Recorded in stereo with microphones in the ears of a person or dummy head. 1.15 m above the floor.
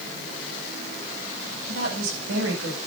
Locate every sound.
1.7 s a woman speaking: 80° right, 7.5 m